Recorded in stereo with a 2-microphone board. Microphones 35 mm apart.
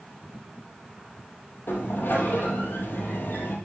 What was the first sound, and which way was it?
A sliding door, 70° left (ahead or behind).